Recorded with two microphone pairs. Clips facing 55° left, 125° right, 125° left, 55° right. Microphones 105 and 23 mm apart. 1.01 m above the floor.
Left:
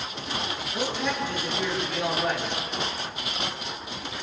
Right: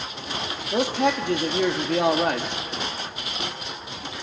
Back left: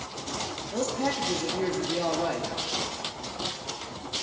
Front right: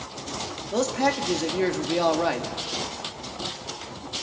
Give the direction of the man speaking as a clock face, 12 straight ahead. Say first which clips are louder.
Right 8 dB, front right 5 dB; 3 o'clock.